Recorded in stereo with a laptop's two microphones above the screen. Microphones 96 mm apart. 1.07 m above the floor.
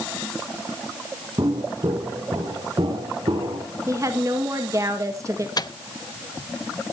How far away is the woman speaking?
About 1.7 m.